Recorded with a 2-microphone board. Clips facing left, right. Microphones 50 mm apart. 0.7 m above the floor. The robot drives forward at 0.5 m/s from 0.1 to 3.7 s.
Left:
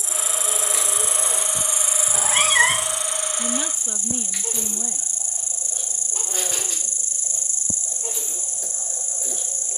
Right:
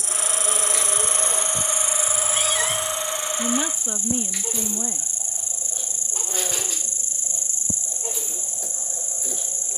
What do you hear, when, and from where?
0.0 s an insect: 60° right (ahead or behind); by 9.8 s 30° right (ahead or behind)
2.1 s a cat meowing: 65° left (ahead or behind); by 3.0 s 35° left (ahead or behind)
3.4 s a woman speaking: 10° right (ahead or behind)